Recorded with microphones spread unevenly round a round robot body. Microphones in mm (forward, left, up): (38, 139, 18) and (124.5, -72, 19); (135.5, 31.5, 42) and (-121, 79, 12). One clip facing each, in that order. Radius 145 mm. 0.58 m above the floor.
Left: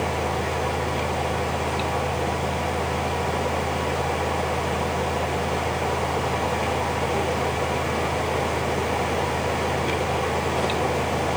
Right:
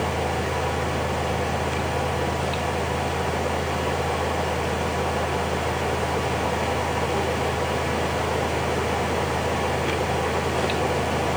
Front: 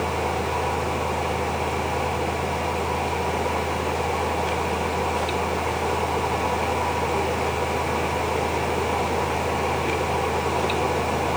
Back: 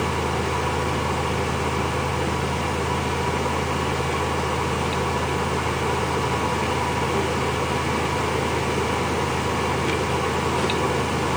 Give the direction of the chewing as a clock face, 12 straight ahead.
I don't hear chewing.